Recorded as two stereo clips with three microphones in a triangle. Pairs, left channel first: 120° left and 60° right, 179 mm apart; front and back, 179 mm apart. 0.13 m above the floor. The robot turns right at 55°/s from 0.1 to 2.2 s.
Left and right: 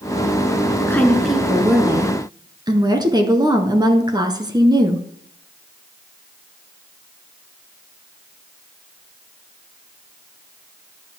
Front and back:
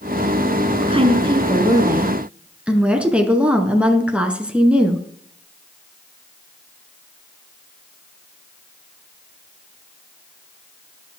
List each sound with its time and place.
0.8 s a woman speaking: straight behind, 1.2 m; by 5.0 s 100° right, 1.2 m